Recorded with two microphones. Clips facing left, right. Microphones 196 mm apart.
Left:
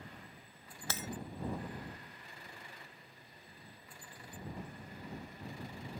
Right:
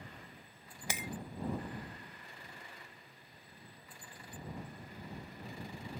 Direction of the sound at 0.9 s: 15° right (ahead or behind).